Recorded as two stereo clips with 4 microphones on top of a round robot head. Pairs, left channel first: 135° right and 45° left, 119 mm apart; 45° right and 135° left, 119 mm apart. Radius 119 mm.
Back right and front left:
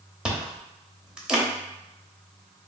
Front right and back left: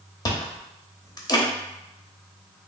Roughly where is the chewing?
Ahead right.